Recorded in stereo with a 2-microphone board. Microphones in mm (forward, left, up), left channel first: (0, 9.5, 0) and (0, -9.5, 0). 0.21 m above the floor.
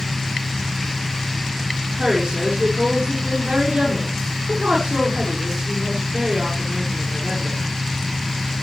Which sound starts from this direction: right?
A woman speaking, at 2.0 s.